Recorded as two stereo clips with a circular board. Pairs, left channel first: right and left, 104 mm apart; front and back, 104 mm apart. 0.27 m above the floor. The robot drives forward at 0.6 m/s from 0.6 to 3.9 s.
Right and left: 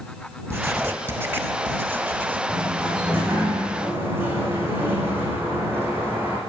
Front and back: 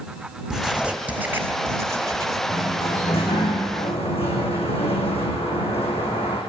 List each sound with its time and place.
0.5 s writing: 105° left, 1.6 m; by 2.4 s 150° left, 2 m
2.5 s a sliding door: 20° left, 8 m